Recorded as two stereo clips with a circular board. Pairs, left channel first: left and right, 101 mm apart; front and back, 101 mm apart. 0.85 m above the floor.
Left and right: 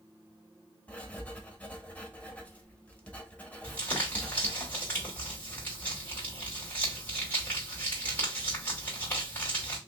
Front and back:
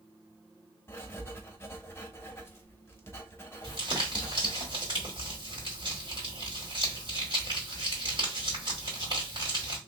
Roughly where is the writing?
Ahead left.